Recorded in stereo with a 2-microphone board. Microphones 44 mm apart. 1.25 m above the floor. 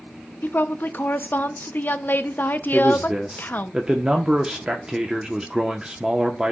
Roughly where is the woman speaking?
Left.